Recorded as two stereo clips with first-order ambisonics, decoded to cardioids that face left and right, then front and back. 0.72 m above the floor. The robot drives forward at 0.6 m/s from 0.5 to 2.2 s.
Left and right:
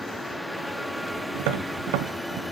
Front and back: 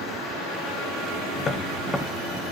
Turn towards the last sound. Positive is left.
turn(degrees=-90)